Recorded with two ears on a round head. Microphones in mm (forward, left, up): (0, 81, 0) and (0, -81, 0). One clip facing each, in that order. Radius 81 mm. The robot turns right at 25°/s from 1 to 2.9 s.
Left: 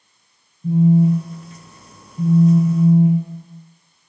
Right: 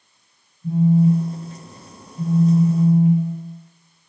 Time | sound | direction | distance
0.6 | a phone buzzing | 65° left | 1.3 m